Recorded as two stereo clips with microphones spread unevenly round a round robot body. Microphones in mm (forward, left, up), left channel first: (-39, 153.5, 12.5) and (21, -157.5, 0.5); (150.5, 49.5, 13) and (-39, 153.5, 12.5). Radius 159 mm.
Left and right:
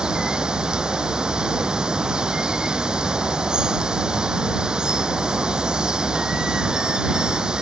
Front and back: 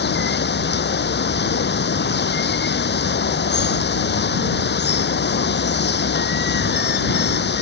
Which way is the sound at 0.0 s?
10° left.